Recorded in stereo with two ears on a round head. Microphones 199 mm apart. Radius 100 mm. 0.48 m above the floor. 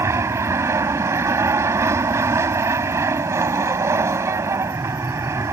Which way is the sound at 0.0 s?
15° right (ahead or behind).